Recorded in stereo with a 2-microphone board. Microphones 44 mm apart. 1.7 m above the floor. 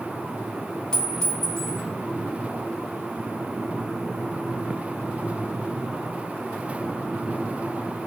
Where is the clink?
20° left (ahead or behind), 4 m.